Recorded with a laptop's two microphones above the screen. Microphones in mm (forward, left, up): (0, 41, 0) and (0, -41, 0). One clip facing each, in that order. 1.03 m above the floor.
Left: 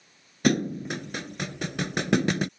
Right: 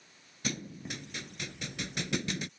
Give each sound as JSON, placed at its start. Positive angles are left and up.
{"t": 0.4, "sound": "a thud", "side_deg": 65}